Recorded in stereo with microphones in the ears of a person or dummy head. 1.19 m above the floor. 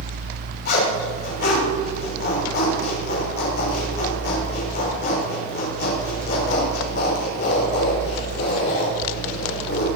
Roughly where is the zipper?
Left.